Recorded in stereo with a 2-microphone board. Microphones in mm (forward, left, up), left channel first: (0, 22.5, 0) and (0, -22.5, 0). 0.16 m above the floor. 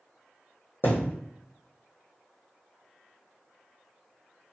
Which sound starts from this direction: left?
A thud, at 0.8 s.